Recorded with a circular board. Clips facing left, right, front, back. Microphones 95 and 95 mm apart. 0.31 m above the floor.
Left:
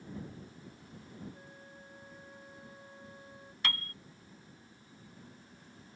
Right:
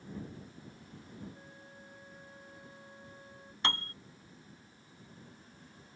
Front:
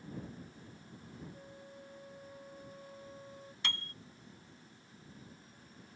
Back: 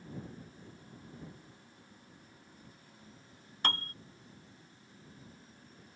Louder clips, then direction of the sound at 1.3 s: Left 1 dB, front 6 dB; 5° left.